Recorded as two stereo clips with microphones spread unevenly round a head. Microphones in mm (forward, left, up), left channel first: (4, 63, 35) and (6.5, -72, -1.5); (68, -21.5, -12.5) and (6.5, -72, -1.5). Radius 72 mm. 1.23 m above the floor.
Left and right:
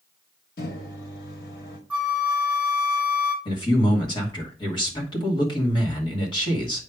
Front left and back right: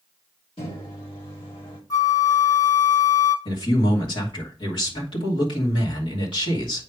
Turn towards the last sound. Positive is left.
turn(degrees=30)